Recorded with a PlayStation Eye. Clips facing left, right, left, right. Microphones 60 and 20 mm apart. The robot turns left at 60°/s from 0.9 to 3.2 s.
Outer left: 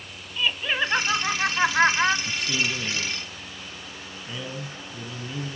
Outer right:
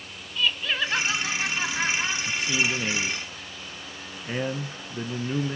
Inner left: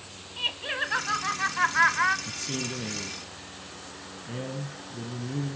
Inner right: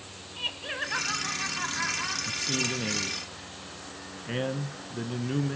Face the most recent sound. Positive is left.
turn(degrees=-50)